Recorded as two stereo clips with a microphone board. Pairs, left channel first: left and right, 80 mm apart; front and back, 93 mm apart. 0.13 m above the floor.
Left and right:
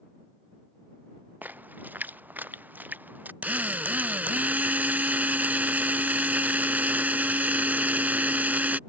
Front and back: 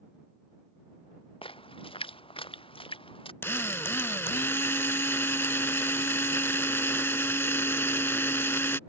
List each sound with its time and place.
1.4 s a splash: 20° right
3.4 s a drill: 40° right